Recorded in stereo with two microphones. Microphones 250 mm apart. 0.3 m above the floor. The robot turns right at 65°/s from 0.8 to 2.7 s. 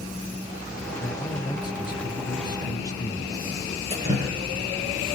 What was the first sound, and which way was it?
A man speaking, 5° left (ahead or behind).